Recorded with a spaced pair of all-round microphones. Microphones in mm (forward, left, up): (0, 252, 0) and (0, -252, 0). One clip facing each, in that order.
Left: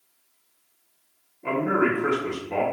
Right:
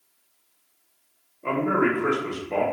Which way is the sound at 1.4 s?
10° left (ahead or behind).